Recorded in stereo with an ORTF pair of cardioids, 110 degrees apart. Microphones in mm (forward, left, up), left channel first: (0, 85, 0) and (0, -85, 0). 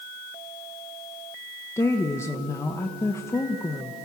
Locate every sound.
1.8 s a woman speaking: 15° left, 1.2 m